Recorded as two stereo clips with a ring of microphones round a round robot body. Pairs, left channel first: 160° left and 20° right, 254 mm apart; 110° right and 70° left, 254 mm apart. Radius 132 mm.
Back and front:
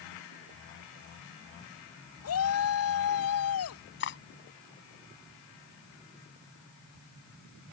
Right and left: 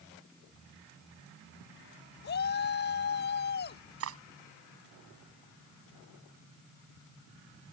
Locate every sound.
2.2 s a shout: 165° right
4.0 s cutlery clinking: 105° left